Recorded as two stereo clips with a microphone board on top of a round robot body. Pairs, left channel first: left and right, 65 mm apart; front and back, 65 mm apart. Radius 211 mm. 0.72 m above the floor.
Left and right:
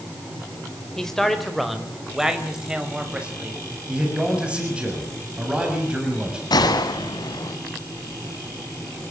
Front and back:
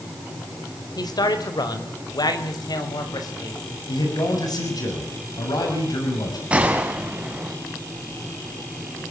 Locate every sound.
1.0 s a man speaking: 10° left, 4 m; by 3.6 s 20° right, 6 m
3.9 s a man speaking: 15° right, 6.5 m
6.5 s a gunshot: 105° left, 1.6 m